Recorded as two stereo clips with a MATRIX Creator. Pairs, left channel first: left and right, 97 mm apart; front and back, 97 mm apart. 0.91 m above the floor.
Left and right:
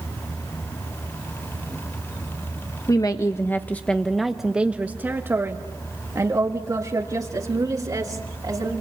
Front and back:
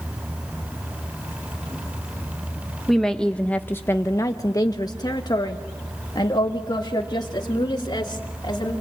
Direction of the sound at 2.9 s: 90° left.